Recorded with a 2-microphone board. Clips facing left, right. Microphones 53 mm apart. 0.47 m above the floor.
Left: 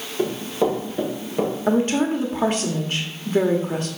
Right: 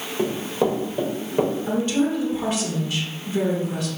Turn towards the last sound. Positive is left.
turn(degrees=40)  # may be behind; listen again after turning